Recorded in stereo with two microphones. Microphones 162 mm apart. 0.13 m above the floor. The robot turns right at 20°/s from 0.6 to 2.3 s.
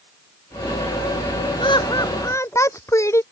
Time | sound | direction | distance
1.6 | laughter | 30° left (ahead or behind) | ?